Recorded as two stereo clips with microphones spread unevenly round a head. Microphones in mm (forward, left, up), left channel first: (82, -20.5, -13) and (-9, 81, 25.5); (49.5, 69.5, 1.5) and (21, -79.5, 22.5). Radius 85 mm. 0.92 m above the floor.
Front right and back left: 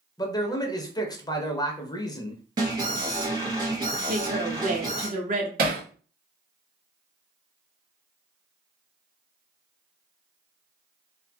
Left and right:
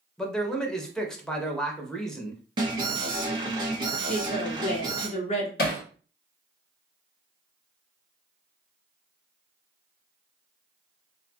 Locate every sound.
0.2 s a man speaking: straight ahead, 0.7 m
2.6 s an alarm: 155° right, 0.7 m
4.1 s a woman speaking: 100° left, 1.0 m
5.6 s hammering: 110° left, 0.9 m